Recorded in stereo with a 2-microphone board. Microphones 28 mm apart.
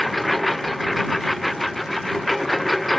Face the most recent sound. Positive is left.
turn(degrees=5)  # may be behind; listen again after turning